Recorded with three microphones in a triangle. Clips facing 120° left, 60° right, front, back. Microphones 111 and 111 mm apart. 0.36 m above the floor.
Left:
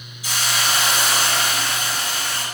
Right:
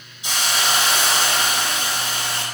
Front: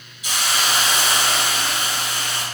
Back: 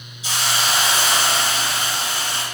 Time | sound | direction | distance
0.2 | a hiss | 125° right | 1.4 m